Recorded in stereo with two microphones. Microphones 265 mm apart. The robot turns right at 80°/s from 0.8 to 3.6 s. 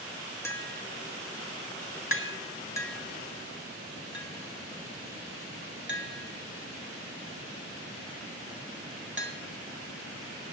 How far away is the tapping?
About 2.5 m.